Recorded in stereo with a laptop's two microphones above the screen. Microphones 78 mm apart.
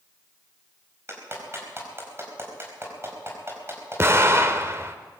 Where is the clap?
35° right (ahead or behind), 4.5 m.